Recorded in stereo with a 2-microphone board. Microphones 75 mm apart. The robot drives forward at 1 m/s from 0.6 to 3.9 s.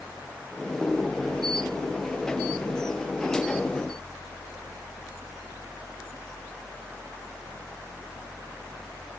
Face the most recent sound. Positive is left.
No sound to turn to.